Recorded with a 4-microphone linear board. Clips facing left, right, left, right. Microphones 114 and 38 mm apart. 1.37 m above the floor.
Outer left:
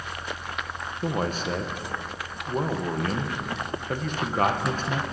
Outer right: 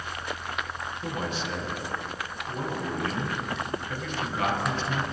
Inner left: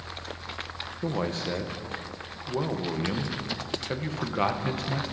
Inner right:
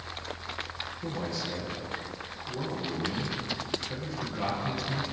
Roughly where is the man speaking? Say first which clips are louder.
Outer left 6 dB, inner left 6 dB; left.